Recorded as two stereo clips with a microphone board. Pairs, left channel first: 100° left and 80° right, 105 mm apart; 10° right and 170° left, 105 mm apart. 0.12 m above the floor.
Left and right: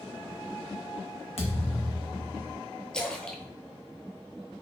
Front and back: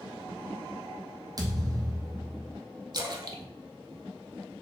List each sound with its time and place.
1.4 s a thud: 120° left, 0.9 m
2.9 s a splash: 175° left, 0.6 m